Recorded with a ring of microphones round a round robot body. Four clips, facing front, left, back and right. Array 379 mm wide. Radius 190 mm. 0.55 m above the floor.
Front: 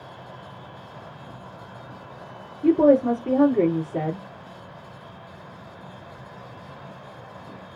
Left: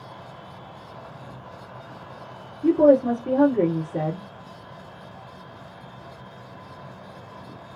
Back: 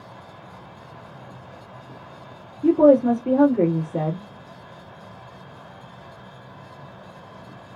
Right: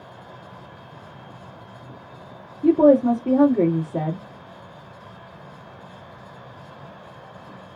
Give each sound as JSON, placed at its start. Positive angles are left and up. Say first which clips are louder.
{"t": 2.6, "sound": "a woman speaking", "louder": "right 2 dB, back 2 dB", "azimuth_deg": -125, "distance_m": 1.2}